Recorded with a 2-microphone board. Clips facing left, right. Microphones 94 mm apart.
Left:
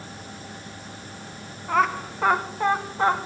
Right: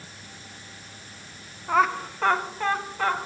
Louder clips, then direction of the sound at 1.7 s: Even; 5° right (ahead or behind).